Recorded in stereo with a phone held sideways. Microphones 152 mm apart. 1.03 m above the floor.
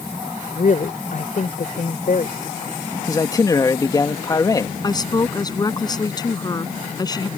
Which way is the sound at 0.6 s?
60° left (ahead or behind).